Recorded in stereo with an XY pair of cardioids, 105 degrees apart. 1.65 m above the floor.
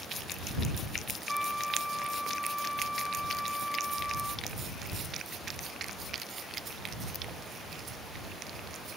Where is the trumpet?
Straight ahead.